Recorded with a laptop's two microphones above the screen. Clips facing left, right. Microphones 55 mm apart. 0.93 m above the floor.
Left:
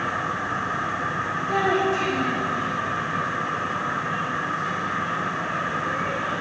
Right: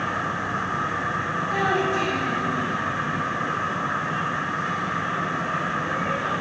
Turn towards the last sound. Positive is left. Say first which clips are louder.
# left 2 dB
turn(degrees=80)